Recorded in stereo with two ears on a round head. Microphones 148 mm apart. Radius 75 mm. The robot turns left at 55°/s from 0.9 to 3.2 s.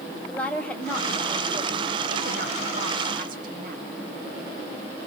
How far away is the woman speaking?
About 3 m.